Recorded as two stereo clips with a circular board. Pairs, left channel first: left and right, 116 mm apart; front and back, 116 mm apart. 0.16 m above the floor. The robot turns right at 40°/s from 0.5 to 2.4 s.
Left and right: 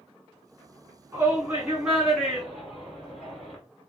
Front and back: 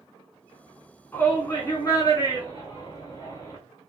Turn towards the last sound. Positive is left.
turn(degrees=5)